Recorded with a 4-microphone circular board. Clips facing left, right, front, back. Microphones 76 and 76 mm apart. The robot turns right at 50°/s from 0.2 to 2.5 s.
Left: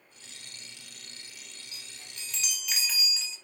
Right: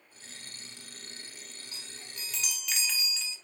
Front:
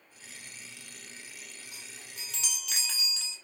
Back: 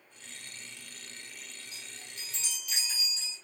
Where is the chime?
35° right, 0.7 m; by 3.4 s 5° left, 0.7 m.